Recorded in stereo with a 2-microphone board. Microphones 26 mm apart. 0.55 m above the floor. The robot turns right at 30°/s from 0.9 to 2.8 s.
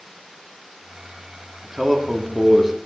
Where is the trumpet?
No trumpet in this recording.